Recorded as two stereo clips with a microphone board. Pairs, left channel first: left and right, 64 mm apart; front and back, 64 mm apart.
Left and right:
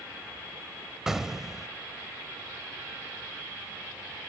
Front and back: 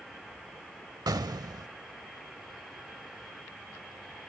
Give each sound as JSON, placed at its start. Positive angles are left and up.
{"t": 1.1, "sound": "an explosion", "azimuth_deg": -175}